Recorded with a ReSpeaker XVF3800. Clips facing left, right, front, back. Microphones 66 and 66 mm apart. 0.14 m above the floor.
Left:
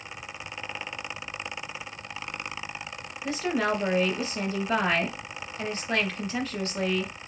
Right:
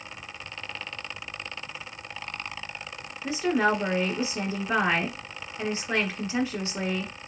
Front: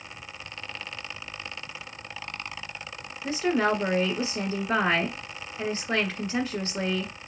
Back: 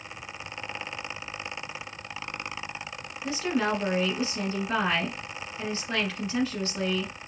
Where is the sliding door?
I don't hear a sliding door.